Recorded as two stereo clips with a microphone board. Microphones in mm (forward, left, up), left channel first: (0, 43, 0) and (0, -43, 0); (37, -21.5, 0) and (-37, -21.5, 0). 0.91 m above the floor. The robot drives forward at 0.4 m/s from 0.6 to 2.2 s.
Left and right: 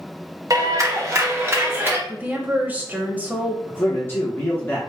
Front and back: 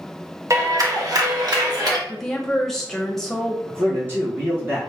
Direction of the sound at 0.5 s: 135° right.